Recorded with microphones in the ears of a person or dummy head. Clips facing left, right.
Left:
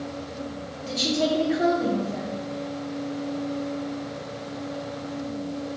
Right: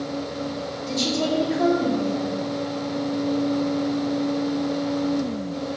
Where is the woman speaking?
5° left (ahead or behind), 1.1 m.